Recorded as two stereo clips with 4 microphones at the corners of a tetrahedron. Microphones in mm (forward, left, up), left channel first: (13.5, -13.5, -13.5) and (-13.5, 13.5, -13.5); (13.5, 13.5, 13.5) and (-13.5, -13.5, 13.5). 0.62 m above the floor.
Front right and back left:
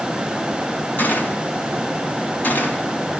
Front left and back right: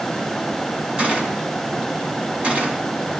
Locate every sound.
1.0 s a gunshot: 80° right, 3.5 m